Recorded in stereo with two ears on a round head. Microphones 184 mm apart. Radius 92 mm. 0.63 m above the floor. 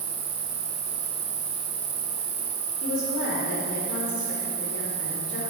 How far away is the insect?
About 1.2 m.